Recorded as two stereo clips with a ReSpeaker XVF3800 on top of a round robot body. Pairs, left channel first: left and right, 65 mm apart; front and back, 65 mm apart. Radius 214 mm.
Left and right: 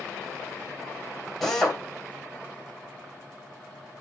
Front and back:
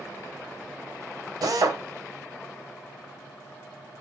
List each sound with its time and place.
1.4 s a drill: 175° left, 2.5 m